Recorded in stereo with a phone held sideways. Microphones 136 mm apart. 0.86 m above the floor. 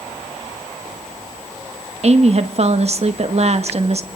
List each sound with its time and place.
2.0 s a woman speaking: 50° right (ahead or behind), 1.1 m